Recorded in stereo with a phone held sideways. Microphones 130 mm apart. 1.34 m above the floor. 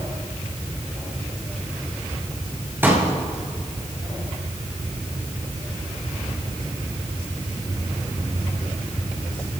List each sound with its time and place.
2.8 s a pop: 15° right (ahead or behind), 6 m